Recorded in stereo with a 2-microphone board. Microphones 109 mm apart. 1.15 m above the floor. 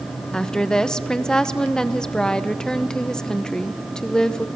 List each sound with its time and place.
0.3 s a woman speaking: 5° left (ahead or behind), 0.8 m